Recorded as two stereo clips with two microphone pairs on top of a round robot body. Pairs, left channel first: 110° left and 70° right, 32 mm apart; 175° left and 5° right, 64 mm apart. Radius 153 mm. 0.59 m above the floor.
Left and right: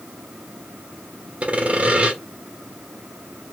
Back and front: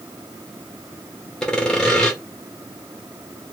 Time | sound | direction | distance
1.4 | sawing | 105° right | 1.2 m